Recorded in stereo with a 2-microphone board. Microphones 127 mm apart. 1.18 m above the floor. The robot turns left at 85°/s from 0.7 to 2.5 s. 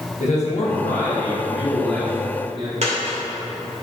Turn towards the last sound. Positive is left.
turn(degrees=-65)  # may be behind; listen again after turning